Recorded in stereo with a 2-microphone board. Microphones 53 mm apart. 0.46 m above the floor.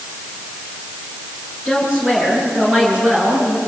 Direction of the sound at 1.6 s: 15° right (ahead or behind).